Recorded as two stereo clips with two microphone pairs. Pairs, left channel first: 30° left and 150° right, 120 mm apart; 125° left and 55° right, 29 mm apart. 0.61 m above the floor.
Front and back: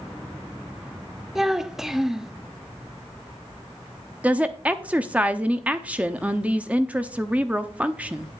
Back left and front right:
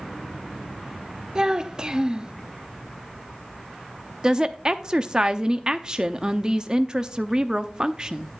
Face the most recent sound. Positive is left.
turn(degrees=-80)